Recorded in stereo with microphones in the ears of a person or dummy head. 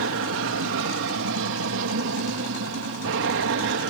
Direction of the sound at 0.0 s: 60° right (ahead or behind).